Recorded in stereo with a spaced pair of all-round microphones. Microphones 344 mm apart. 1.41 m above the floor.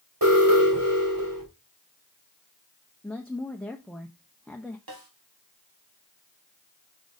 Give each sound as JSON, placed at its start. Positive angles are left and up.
{"t": 0.2, "sound": "an alarm", "side_deg": -70, "distance_m": 4.0}
{"t": 3.0, "sound": "a woman speaking", "side_deg": 0, "distance_m": 0.7}
{"t": 4.9, "sound": "a snare drum", "side_deg": -90, "distance_m": 1.5}